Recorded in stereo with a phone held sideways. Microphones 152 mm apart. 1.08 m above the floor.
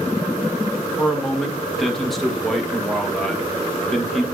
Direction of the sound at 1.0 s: Centre (ahead or behind).